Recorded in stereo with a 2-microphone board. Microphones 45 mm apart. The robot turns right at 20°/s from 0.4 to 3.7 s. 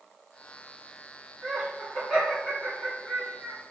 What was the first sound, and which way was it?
Laughter, centre (ahead or behind).